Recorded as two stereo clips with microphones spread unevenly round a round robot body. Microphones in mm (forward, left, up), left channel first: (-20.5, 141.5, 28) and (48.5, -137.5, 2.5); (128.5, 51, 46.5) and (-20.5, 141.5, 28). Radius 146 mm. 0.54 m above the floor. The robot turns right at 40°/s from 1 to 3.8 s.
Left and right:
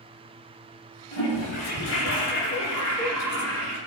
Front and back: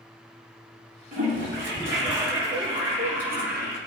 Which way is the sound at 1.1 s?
115° left.